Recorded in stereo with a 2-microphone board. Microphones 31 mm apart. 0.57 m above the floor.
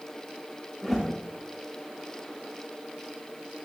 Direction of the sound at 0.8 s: Centre (ahead or behind).